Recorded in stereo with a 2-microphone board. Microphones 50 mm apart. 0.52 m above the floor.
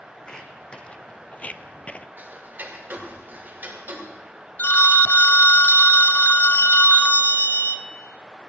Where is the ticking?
40° right (ahead or behind), 2 m.